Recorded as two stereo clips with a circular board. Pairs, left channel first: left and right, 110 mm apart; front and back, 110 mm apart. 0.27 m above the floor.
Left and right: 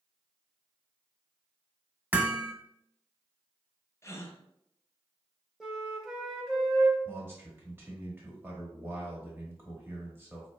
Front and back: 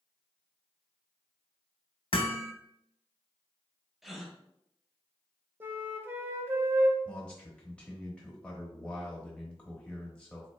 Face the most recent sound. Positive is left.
turn(degrees=-65)